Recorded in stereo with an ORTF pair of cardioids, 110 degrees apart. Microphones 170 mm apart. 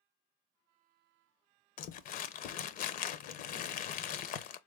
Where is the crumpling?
60° left, 0.5 m.